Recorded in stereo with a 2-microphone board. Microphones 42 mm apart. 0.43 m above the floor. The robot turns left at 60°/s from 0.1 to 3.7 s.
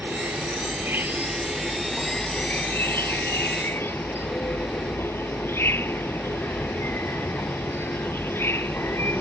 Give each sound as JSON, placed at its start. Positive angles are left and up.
{"t": 0.0, "sound": "an insect", "azimuth_deg": -75}